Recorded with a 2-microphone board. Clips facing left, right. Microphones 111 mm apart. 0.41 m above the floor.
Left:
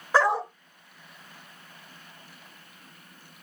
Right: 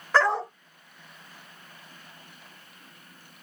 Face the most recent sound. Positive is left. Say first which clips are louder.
# even
turn(degrees=15)  # may be behind; listen again after turning